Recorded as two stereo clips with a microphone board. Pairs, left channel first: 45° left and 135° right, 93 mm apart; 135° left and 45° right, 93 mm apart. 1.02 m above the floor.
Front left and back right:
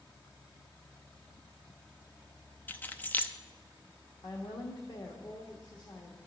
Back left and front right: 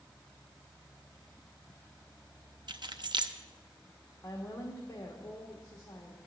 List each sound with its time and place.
2.7 s keys jangling: 25° right, 0.5 m
4.2 s a woman speaking: 75° left, 1.3 m